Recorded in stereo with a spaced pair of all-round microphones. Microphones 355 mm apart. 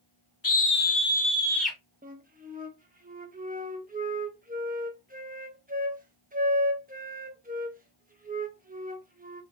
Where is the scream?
70° left (ahead or behind), 0.7 m; by 1.8 s 5° right (ahead or behind), 0.9 m.